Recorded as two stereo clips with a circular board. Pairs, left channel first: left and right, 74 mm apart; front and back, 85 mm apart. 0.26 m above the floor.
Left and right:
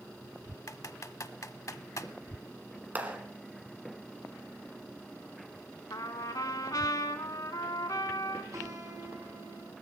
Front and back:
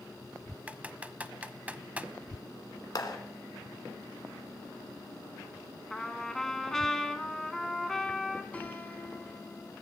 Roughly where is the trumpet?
Left.